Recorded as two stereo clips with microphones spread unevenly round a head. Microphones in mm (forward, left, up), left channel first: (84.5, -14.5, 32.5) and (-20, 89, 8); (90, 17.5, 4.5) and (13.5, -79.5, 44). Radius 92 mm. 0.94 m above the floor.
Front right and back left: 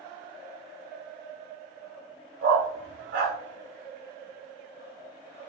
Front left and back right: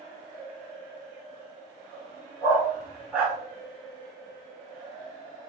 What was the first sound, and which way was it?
A dog barking, 155° left.